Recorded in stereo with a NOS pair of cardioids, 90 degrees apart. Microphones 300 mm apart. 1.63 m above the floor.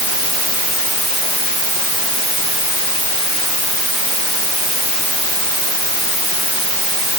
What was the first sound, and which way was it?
Only background noise.